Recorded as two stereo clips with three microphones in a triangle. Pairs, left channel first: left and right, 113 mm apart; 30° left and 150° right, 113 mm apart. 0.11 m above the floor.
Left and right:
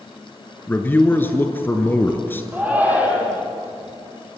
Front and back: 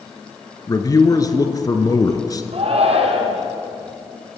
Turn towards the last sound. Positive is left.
turn(degrees=-165)